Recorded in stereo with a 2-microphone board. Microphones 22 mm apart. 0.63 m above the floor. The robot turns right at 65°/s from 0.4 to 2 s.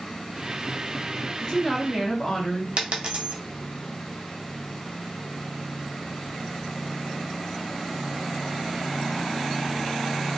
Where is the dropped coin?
65° right (ahead or behind), 0.5 m.